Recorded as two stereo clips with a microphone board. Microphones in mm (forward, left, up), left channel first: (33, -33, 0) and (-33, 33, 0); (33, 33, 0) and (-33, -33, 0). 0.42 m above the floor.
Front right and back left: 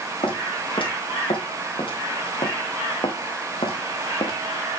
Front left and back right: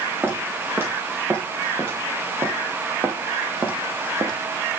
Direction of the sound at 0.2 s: 70° right.